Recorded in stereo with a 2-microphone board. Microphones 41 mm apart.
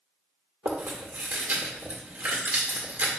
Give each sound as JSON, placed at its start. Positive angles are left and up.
{"t": 0.7, "sound": "chewing", "side_deg": -45, "distance_m": 2.0}